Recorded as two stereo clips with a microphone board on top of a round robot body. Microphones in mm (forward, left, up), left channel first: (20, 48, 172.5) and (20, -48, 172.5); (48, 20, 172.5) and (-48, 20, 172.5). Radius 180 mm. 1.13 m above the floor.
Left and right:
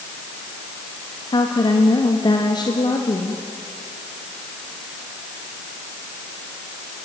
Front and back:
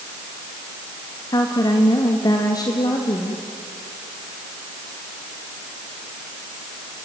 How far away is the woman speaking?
About 2.5 m.